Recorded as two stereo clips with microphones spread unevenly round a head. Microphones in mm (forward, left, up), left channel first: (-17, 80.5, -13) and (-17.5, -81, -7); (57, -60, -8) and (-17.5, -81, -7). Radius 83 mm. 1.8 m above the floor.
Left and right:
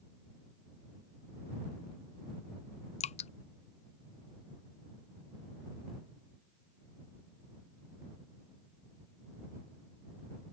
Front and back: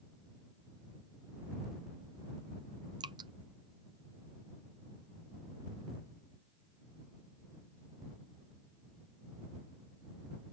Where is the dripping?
140° left.